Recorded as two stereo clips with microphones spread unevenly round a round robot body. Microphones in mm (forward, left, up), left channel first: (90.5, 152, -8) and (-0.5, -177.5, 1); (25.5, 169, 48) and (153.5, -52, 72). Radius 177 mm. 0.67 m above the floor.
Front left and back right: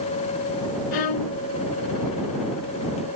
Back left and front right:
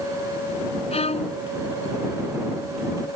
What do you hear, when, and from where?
0.9 s a violin: 55° left